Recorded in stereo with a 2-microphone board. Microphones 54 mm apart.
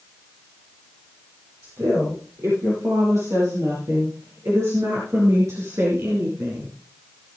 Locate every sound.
1.6 s a woman speaking: 65° right (ahead or behind), 8.5 m; by 6.7 s 60° right (ahead or behind), 3 m